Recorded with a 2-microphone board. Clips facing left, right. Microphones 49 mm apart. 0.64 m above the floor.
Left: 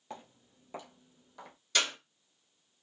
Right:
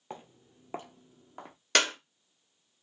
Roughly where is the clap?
Right.